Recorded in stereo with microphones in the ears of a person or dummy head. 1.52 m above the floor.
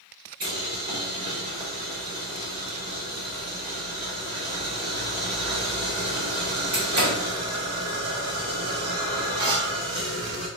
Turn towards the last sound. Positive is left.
turn(degrees=-50)  # may be behind; listen again after turning